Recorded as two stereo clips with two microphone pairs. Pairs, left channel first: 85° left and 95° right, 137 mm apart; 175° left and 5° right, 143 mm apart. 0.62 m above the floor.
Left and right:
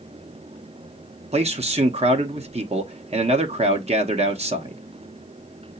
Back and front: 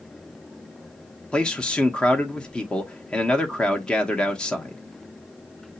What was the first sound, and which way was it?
A man speaking, 100° right.